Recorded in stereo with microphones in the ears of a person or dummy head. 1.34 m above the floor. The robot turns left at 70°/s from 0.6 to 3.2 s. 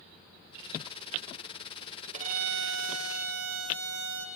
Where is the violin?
45° right, 2.5 m; by 4.3 s 120° right, 2.5 m.